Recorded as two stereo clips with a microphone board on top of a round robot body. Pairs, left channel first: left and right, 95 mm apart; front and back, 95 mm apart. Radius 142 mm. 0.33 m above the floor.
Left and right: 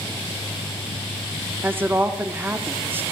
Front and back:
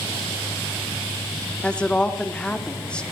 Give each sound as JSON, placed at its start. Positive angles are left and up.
{"t": 1.6, "sound": "a woman speaking", "azimuth_deg": -65, "distance_m": 1.0}